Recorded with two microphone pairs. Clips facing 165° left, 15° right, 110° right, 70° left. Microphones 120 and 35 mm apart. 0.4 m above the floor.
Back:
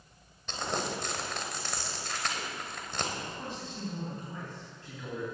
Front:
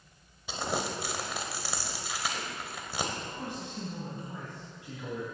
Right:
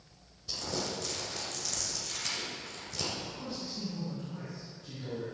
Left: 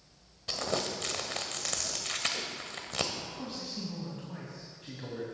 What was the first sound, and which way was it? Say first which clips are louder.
Crumpling: front 1 dB, left 3 dB; 65° left.